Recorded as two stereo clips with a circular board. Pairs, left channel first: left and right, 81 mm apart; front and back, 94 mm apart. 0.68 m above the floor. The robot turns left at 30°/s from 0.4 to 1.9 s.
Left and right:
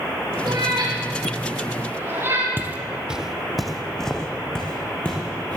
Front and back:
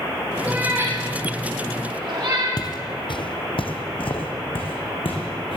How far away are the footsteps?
About 1.1 m.